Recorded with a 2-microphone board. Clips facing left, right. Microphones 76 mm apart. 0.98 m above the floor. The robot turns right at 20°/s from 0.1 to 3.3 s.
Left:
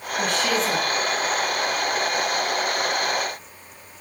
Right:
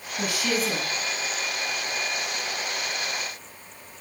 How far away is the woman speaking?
About 9.5 m.